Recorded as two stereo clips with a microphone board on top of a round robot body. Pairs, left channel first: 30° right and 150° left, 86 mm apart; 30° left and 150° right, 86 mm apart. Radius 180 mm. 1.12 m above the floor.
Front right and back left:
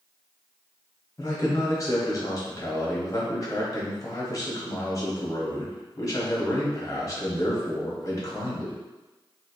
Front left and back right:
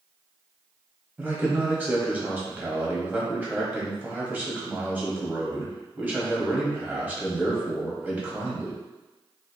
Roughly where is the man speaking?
Right.